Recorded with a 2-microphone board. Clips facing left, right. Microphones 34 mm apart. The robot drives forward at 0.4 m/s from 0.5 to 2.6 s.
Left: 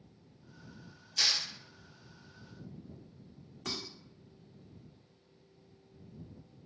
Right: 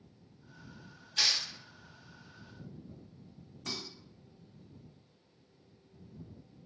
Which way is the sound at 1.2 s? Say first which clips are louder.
Right 1 dB; 30° right (ahead or behind).